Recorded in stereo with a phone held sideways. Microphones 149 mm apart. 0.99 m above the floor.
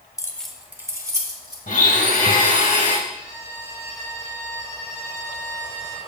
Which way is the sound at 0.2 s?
20° left (ahead or behind).